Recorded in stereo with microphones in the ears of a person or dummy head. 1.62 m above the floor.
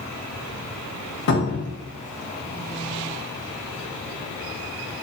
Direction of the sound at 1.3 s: 55° left (ahead or behind).